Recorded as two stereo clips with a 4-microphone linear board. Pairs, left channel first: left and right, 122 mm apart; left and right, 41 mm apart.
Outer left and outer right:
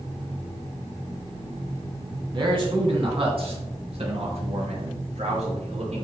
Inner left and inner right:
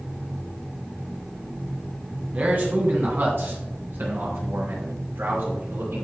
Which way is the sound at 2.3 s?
40° right (ahead or behind).